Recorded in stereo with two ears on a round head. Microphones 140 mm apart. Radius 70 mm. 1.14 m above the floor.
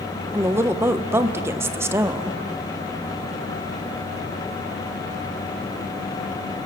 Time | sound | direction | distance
0.3 | a woman speaking | 15° right (ahead or behind) | 1.0 m